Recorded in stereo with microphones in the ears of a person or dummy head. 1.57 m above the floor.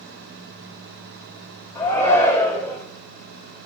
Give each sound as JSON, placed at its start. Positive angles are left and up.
{"t": 1.8, "sound": "a shout", "side_deg": 10, "distance_m": 5.5}